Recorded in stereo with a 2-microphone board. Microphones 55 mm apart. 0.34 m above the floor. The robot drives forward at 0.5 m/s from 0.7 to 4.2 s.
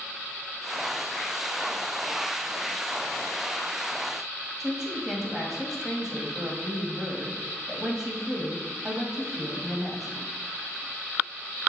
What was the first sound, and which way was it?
A woman speaking, 5° right (ahead or behind).